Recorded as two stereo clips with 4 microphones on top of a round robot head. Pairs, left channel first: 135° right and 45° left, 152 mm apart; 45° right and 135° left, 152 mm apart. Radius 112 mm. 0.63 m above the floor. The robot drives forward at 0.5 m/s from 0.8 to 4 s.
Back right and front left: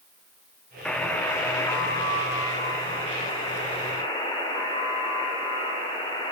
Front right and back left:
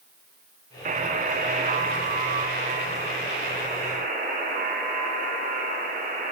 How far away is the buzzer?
About 1.5 m.